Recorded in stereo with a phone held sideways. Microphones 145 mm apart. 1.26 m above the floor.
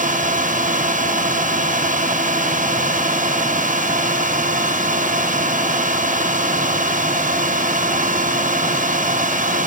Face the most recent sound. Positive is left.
turn(degrees=-60)  # may be behind; listen again after turning